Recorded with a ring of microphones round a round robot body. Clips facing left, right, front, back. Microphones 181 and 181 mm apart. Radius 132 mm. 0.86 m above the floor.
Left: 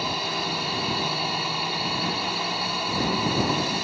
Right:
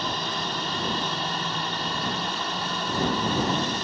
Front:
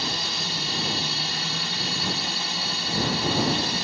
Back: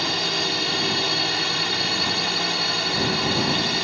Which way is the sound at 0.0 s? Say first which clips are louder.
Left 1 dB, back 6 dB; 170° left.